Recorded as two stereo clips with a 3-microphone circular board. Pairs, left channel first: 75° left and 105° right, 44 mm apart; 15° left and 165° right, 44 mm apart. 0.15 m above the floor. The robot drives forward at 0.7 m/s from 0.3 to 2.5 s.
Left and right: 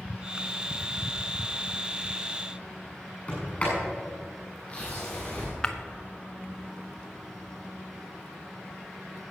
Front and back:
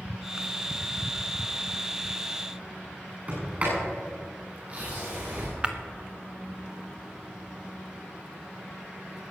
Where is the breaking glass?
135° left, 0.9 m.